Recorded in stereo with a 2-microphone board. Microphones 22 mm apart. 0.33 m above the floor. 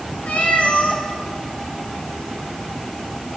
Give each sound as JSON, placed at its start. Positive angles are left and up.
{"t": 0.3, "sound": "a cat meowing", "side_deg": 80, "distance_m": 3.0}